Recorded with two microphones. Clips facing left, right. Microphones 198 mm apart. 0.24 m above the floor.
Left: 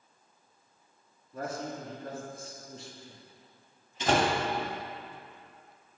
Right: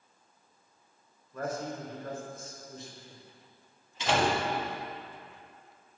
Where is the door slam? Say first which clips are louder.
Left 1 dB; 45° left (ahead or behind), 1.4 m.